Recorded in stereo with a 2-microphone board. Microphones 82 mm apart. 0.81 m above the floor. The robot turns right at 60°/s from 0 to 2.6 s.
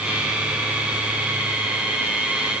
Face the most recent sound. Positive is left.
No sound to turn to.